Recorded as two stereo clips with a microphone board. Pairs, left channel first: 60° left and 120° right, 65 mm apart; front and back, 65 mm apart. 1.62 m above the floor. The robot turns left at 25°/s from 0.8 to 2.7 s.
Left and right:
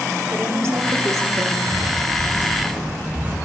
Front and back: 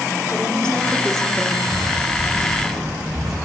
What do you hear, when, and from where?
0.3 s a woman speaking: 80° right, 5.5 m; by 1.6 s 100° right, 5.5 m
1.7 s footsteps: 170° right, 9.5 m; by 3.4 s 170° left, 7.5 m